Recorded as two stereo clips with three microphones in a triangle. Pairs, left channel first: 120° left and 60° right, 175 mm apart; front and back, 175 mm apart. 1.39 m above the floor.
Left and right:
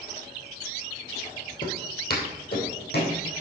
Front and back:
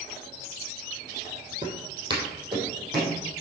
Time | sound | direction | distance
1.6 | footsteps | 120° left | 2 m